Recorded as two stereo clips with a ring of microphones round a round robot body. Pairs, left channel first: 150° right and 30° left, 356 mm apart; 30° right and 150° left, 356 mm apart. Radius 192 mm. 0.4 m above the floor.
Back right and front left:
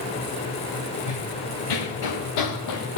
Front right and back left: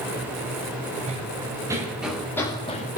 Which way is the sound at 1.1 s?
135° right.